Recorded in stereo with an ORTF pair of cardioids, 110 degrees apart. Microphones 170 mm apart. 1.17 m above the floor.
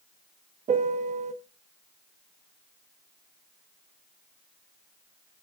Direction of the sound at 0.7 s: 40° right.